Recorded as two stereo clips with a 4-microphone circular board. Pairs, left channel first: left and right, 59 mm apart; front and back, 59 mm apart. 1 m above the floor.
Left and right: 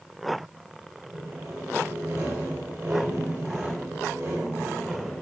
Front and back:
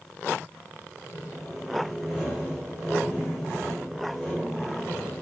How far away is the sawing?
About 2 m.